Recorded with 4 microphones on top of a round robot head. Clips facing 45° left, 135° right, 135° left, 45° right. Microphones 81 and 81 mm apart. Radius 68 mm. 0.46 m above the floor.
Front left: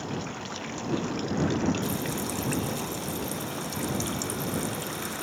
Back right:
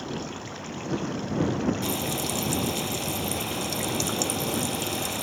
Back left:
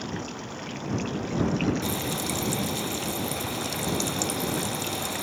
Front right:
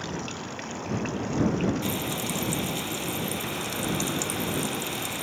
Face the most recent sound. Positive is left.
turn(degrees=-155)